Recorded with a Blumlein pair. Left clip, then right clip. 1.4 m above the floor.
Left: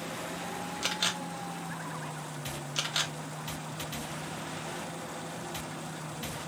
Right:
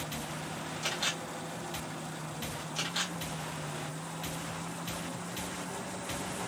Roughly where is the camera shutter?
Ahead left.